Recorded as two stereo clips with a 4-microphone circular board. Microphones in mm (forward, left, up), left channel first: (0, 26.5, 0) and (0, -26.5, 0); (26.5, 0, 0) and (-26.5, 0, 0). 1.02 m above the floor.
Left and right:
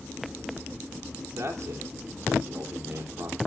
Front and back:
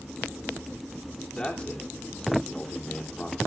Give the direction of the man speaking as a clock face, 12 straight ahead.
2 o'clock.